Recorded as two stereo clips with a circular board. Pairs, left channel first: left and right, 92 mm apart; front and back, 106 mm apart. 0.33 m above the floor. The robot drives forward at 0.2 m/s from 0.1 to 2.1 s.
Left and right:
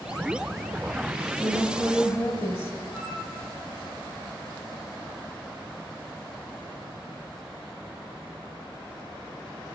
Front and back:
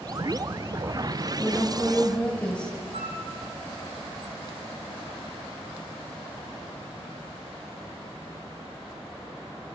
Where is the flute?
175° right, 2.5 m.